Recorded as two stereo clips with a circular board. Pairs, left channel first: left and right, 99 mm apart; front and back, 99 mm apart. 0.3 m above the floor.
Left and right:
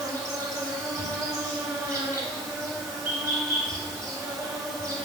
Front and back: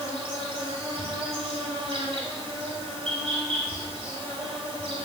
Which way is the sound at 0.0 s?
150° right.